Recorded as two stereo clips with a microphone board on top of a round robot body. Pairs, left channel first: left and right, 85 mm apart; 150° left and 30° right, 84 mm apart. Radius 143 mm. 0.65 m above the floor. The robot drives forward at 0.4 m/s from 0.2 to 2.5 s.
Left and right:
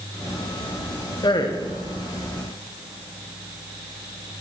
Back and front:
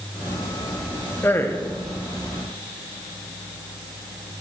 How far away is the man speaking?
About 1.4 m.